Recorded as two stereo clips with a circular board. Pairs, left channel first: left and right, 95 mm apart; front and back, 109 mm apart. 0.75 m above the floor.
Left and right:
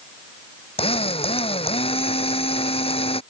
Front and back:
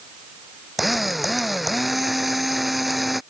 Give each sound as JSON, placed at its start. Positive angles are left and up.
{"t": 0.8, "sound": "a drill", "azimuth_deg": 90}